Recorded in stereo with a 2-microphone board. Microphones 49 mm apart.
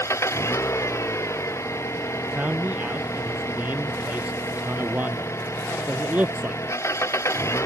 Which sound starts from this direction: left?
An engine running, at 0.0 s.